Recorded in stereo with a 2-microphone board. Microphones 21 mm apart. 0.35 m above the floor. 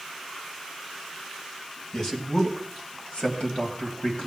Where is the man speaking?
35° left (ahead or behind), 2 m; by 4.3 s 60° left (ahead or behind), 3 m.